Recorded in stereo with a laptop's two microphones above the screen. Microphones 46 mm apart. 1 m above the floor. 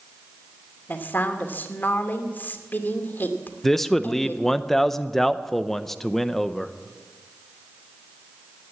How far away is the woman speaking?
About 2.5 m.